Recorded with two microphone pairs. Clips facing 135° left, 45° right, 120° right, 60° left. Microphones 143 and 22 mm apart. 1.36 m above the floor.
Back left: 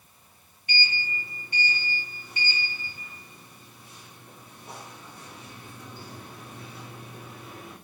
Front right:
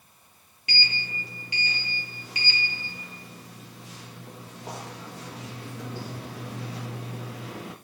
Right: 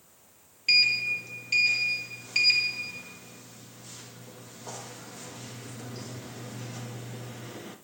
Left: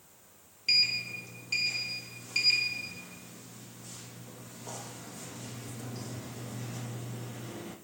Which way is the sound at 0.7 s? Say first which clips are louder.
Back left 2 dB, right 5 dB; 45° right.